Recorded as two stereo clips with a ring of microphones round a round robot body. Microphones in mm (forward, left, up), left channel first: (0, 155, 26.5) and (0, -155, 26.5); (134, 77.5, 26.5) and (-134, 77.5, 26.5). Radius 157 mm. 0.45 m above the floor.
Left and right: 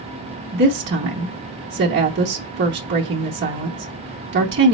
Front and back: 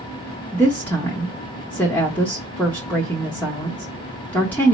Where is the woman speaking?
80° right, 0.8 m.